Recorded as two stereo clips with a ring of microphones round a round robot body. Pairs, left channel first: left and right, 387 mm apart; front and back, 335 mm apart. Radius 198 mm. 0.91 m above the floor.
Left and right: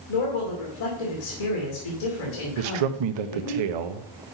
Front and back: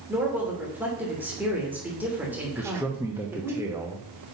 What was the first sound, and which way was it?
A man speaking, 95° left.